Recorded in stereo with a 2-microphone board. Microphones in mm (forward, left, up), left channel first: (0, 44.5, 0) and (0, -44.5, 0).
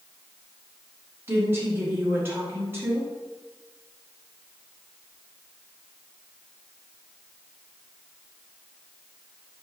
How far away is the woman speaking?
About 1.6 m.